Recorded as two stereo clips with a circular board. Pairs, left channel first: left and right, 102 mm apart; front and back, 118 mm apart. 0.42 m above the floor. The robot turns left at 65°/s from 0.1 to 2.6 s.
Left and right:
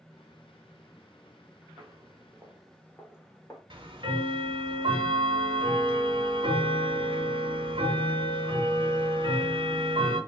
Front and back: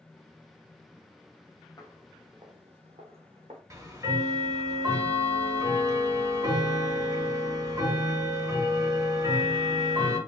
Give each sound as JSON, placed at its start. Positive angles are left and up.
{"t": 1.8, "sound": "footsteps", "azimuth_deg": -50, "distance_m": 0.8}
{"t": 3.7, "sound": "ticking", "azimuth_deg": -115, "distance_m": 0.6}